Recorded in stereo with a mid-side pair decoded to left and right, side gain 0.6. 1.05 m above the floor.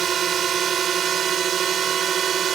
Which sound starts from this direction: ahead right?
A drone, at 0.0 s.